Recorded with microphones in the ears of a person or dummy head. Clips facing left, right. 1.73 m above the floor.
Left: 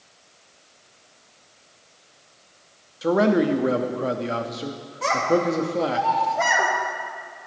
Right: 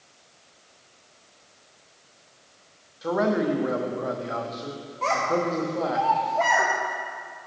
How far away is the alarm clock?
I don't hear an alarm clock.